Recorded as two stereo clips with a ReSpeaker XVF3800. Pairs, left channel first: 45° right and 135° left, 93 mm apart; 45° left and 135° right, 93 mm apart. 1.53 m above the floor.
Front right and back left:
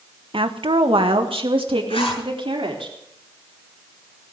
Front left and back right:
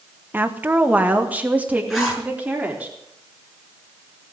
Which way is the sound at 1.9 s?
50° right.